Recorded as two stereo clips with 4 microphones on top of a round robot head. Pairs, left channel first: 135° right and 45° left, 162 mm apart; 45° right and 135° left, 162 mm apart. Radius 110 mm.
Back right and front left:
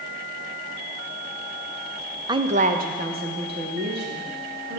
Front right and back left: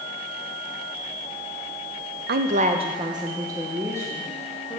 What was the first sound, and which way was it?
A woman speaking, 110° left.